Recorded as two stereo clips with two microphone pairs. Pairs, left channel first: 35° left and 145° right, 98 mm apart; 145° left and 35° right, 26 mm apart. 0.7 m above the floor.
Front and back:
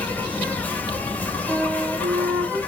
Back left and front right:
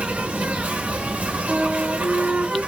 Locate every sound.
0.0 s an insect: 40° right, 1.0 m
1.5 s a flute: 75° right, 2.0 m